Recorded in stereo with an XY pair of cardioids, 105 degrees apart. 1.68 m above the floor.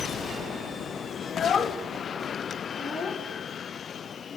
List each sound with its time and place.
1.2 s a child speaking: 45° left, 2.5 m; by 4.4 s straight ahead, 4 m